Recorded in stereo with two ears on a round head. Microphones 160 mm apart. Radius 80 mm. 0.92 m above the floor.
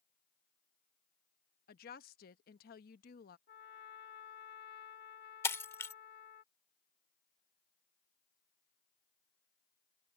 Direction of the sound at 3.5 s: 60° left (ahead or behind).